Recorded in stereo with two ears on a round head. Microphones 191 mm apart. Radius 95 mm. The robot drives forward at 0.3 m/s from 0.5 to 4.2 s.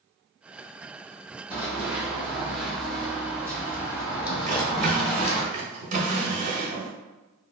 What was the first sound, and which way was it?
Running footsteps, 10° right (ahead or behind).